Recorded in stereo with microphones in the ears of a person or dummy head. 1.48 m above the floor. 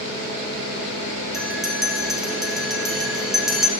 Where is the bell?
Centre (ahead or behind), 1.5 m.